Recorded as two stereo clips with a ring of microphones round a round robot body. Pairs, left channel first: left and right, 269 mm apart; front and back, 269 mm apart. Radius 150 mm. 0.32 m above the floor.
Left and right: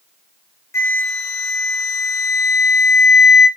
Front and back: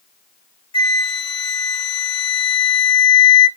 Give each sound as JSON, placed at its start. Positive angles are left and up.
{"t": 0.7, "sound": "a flute", "azimuth_deg": 30, "distance_m": 0.6}